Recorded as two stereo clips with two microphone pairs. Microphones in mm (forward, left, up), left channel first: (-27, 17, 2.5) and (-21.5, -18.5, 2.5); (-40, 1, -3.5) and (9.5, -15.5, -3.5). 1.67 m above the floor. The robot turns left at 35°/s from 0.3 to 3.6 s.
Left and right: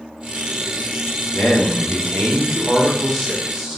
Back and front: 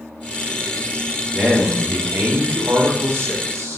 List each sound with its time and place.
1.4 s a man speaking: 75° left, 1.1 m; by 3.8 s straight ahead, 1.1 m